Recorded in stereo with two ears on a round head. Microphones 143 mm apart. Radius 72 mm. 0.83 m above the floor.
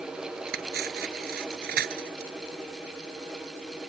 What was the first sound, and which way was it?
Cutlery clinking, 60° right (ahead or behind).